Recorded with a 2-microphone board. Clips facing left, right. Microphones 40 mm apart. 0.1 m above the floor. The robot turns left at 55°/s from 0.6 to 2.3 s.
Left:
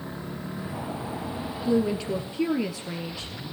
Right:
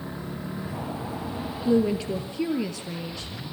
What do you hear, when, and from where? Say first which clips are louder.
1.6 s a woman speaking: right 2 dB; 160° right, 1.9 m; by 3.3 s 165° left, 1.9 m